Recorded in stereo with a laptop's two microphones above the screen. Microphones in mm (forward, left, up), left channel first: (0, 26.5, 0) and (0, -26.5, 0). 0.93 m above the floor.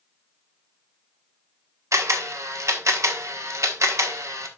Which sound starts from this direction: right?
A camera shutter, at 1.9 s.